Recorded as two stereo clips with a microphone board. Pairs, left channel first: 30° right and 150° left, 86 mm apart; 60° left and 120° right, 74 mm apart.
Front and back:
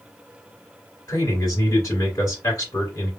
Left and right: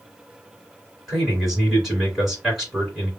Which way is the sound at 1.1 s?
30° right.